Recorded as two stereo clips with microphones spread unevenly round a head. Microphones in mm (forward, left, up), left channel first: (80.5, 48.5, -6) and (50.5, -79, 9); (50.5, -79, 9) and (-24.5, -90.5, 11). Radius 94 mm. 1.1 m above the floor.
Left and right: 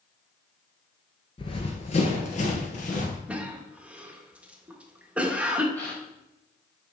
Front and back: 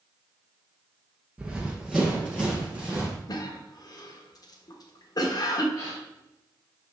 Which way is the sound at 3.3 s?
20° right.